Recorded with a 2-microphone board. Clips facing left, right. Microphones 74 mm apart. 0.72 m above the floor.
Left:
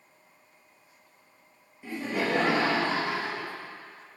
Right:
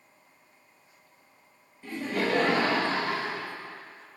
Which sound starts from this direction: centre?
Laughter, at 1.8 s.